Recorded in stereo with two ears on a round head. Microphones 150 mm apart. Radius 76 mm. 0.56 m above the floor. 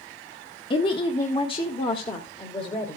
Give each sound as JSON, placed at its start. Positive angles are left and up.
{"t": 0.7, "sound": "a woman speaking", "side_deg": 30, "distance_m": 0.9}